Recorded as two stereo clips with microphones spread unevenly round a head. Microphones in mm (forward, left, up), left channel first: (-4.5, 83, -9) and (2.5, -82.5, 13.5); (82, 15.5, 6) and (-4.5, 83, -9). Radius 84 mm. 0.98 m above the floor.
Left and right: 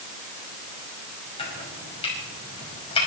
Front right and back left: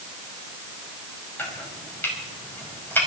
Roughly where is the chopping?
Ahead left.